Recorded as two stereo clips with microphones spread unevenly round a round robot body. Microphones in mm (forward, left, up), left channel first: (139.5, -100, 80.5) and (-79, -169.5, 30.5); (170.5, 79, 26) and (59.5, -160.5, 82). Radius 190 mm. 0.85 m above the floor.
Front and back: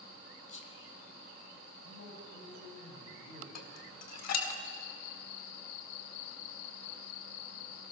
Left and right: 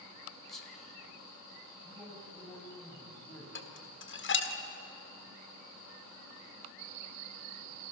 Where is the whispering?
20° right, 3 m.